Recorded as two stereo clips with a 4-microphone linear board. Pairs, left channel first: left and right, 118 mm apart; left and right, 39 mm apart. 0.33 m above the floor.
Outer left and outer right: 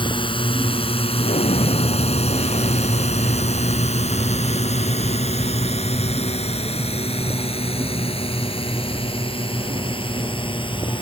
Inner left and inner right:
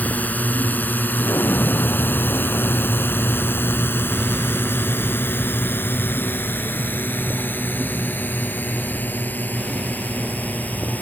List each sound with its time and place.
0.0 s a drone: 45° left (ahead or behind)
1.2 s an explosion: 80° left